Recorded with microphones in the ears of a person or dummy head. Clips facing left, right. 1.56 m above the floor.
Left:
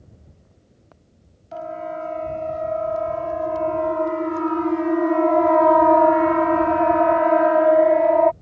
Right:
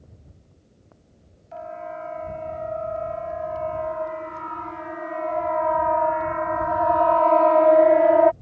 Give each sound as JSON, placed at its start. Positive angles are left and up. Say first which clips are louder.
{"t": 1.5, "sound": "a siren", "louder": "left 5 dB", "side_deg": 65}